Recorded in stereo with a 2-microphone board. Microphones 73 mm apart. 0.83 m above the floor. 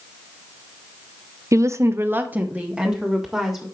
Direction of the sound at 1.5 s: 45° right (ahead or behind).